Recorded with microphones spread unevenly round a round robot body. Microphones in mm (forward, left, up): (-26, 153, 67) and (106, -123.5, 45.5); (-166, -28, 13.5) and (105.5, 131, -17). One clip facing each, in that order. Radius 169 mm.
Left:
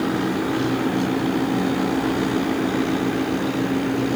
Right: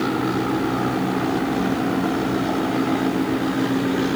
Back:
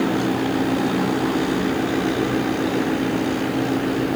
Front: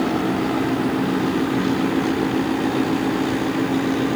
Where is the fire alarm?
I don't hear a fire alarm.